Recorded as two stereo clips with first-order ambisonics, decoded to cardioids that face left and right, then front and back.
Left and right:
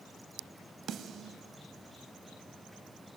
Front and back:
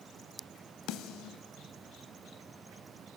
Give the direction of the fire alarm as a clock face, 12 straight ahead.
I don't hear a fire alarm.